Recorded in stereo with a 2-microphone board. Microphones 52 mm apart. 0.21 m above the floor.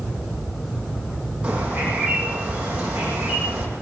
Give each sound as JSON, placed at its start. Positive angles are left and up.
{"t": 1.4, "sound": "a bird", "side_deg": -25, "distance_m": 9.5}